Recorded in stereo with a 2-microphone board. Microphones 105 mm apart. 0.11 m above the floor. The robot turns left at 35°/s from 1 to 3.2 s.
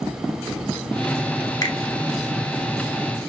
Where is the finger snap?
35° left (ahead or behind), 1.1 m.